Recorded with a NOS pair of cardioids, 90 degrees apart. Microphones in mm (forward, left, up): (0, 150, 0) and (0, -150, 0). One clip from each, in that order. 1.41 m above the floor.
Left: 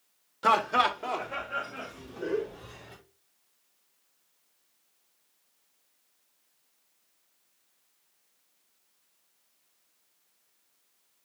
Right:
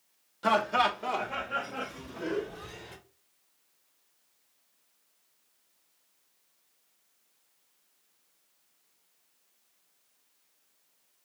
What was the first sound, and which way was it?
Laughter, 20° left.